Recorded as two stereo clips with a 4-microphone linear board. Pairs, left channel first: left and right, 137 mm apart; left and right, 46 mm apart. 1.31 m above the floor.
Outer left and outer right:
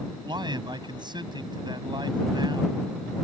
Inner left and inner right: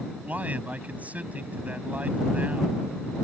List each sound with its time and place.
0.2 s a man speaking: 35° right (ahead or behind)